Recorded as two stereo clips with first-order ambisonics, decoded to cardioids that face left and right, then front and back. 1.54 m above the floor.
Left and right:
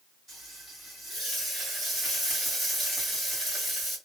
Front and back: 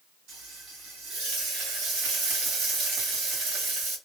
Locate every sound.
0.3 s frying: 170° right, 2.0 m